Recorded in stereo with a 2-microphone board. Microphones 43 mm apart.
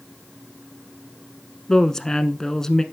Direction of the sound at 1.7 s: 15° left (ahead or behind).